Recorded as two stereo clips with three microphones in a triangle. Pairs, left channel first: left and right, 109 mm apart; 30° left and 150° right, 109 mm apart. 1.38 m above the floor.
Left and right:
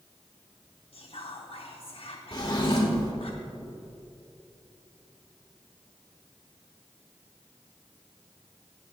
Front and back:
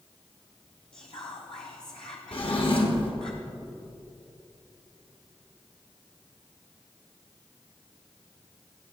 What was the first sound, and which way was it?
Whispering, 60° left.